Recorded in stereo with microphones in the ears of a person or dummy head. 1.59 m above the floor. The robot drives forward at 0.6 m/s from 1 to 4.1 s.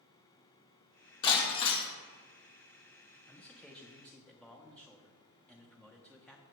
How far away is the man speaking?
About 0.8 m.